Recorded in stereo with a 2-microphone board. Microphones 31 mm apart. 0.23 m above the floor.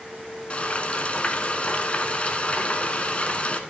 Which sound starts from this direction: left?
Frying, at 0.5 s.